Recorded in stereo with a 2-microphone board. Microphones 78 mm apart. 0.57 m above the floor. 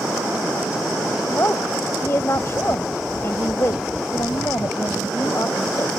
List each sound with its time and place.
1.2 s a woman speaking: 40° left (ahead or behind)